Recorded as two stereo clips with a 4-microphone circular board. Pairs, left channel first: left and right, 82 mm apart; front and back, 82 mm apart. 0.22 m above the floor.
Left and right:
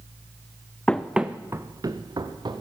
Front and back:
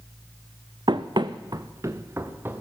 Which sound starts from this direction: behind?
Running footsteps, at 0.9 s.